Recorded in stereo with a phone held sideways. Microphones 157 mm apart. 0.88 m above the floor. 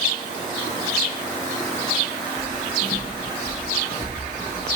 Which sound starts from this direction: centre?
Footsteps, at 2.4 s.